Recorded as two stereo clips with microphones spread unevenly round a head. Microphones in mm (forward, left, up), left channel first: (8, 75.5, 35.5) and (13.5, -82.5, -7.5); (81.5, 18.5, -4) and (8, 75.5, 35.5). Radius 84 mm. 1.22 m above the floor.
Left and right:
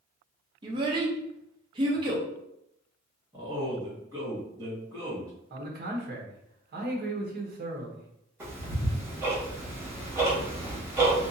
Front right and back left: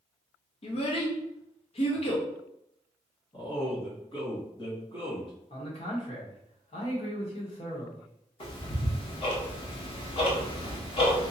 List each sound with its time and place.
0.6 s a child speaking: 25° right, 0.9 m
3.3 s a man speaking: 25° right, 1.8 m
5.5 s a man speaking: 65° right, 1.1 m
8.4 s ticking: 5° right, 1.1 m